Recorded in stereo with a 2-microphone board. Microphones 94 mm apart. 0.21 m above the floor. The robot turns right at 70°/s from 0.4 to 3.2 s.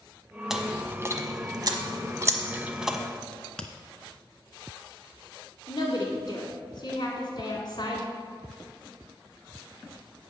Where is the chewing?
5° right (ahead or behind), 0.7 m; by 3.0 s centre (ahead or behind), 0.7 m.